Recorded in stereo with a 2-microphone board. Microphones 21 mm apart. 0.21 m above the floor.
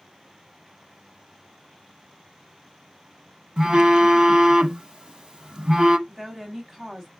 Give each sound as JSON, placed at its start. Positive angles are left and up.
{"t": 3.6, "sound": "a phone buzzing", "side_deg": -35, "distance_m": 0.6}
{"t": 6.1, "sound": "a woman speaking", "side_deg": -20, "distance_m": 1.1}